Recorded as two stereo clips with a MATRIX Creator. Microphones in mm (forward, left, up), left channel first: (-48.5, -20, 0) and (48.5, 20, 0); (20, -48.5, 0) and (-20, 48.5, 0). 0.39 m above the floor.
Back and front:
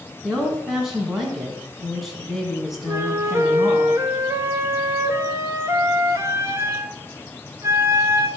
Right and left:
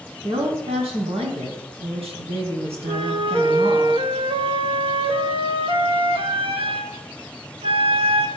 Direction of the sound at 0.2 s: 110° left.